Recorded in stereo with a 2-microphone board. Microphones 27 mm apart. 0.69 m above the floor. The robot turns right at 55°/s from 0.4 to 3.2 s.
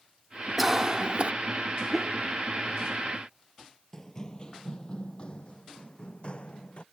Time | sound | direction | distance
0.6 | a cough | 170° right | ?
1.9 | a whoosh | 5° right (ahead or behind) | ?
3.9 | running footsteps | 20° left (ahead or behind) | ?